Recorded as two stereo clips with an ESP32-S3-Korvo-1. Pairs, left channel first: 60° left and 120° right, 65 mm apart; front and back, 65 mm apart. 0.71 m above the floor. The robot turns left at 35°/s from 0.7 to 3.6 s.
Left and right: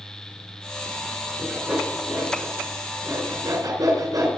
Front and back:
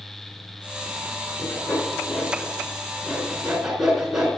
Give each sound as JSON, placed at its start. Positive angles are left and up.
{"t": 1.4, "sound": "sawing", "azimuth_deg": -20, "distance_m": 3.5}